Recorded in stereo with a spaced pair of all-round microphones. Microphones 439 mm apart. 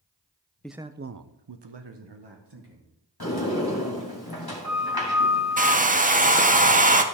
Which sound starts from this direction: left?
A sliding door, at 3.2 s.